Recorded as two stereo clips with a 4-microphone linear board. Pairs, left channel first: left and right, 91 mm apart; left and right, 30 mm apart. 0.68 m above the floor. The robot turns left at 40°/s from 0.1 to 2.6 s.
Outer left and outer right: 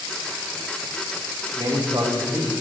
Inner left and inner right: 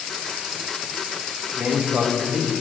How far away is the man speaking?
About 3 m.